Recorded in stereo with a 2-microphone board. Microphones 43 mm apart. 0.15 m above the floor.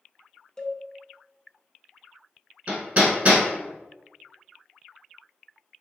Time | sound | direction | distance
0.6 | a cowbell | 15° left (ahead or behind) | 0.5 m
2.7 | hammering | 30° right (ahead or behind) | 1.4 m